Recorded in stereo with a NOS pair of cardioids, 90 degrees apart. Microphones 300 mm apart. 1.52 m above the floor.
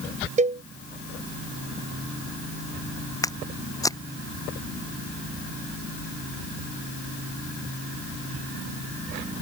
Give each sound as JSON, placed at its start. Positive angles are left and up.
{"t": 0.4, "sound": "a cowbell", "azimuth_deg": -25}
{"t": 3.2, "sound": "footsteps", "azimuth_deg": 10}